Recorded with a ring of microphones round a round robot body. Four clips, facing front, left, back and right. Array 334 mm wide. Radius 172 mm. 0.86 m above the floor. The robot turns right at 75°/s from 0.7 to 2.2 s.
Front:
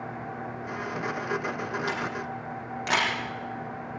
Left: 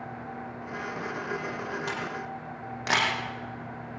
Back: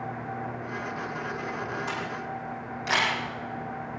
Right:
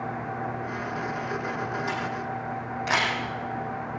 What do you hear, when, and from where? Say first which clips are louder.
1.9 s a camera shutter: right 4 dB, front 1 dB; 40° left, 7 m; by 3.1 s 65° left, 7 m